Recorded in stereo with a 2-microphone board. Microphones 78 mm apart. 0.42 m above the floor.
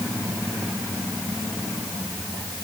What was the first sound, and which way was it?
Only background noise.